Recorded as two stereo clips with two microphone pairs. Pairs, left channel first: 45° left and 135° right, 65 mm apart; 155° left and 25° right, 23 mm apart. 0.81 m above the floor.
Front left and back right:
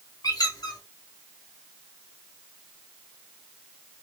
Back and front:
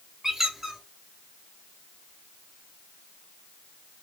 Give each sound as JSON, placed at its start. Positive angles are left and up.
{"t": 0.2, "sound": "a squeak", "azimuth_deg": 45, "distance_m": 1.1}